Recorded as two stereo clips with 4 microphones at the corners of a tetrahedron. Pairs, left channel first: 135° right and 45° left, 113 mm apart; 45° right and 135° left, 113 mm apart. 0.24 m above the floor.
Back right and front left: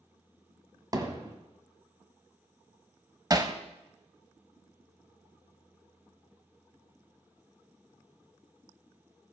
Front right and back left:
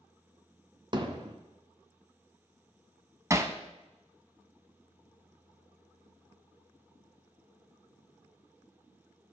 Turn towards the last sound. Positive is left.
turn(degrees=85)